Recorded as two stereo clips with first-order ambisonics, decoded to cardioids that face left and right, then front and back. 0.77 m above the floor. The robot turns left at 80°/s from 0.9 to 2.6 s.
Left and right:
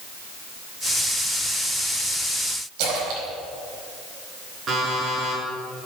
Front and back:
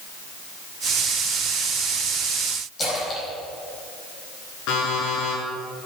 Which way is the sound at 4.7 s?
25° right.